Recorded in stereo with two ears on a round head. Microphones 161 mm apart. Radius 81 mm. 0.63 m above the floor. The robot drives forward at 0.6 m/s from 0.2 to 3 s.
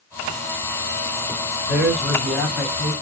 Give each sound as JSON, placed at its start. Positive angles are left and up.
{"t": 1.7, "sound": "a man speaking", "side_deg": -5, "distance_m": 2.0}